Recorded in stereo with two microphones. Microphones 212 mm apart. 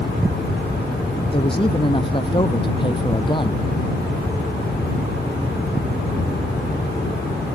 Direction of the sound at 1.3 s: 25° left (ahead or behind).